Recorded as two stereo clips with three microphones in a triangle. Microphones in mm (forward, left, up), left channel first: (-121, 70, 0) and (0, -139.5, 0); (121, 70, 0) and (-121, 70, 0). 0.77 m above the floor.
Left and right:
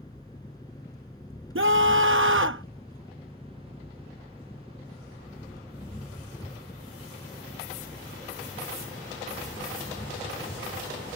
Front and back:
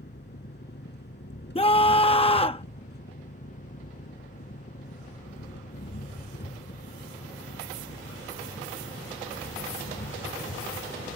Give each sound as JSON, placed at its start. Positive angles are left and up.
{"t": 0.0, "sound": "an engine running", "azimuth_deg": 45}
{"t": 1.6, "sound": "a scream", "azimuth_deg": -60}